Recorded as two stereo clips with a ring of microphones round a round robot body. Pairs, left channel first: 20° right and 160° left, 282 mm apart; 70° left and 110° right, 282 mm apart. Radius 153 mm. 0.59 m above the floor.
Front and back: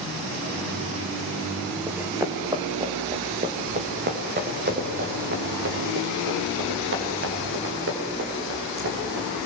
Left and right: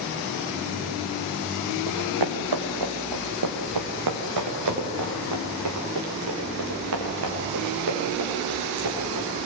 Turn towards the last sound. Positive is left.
turn(degrees=-155)